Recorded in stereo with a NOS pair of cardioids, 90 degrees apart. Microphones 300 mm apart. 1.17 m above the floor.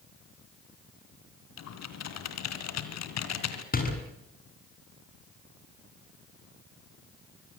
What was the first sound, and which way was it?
Typing on a keyboard, 65° left.